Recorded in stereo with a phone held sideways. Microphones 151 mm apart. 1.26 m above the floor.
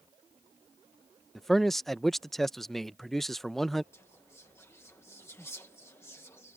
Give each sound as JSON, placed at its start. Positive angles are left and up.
{"t": 1.4, "sound": "a man speaking", "side_deg": 0}
{"t": 3.9, "sound": "whispering", "side_deg": 15}